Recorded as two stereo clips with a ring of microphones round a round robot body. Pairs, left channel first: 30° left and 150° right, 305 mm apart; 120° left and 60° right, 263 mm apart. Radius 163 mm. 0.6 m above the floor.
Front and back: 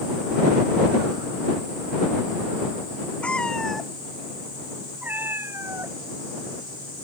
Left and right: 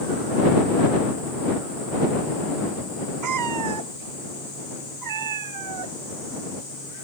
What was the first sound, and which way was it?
A cat meowing, 55° right.